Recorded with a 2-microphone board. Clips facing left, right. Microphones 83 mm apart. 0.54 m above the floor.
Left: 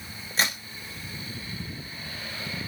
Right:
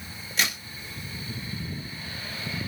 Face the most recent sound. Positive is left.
turn(degrees=35)  # may be behind; listen again after turning